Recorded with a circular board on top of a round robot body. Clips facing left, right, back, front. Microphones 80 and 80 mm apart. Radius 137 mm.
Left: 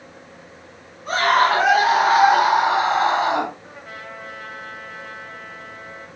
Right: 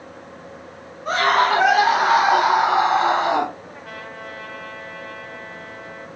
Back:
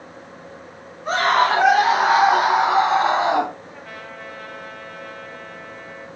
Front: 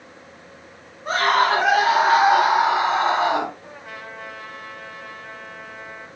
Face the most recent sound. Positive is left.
turn(degrees=-75)